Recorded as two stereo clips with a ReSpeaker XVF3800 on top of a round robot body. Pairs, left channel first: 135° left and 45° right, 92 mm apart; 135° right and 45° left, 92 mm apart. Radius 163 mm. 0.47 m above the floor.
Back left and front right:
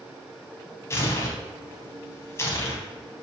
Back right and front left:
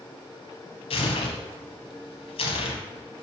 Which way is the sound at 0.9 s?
160° right.